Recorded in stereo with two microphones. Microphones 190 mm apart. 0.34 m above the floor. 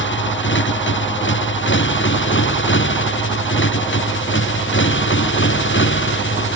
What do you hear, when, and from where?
0.0 s a motorcycle: 80° left; by 6.6 s 85° left